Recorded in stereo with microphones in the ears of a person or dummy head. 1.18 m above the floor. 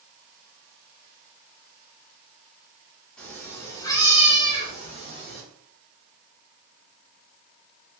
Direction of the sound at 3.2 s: 5° left (ahead or behind).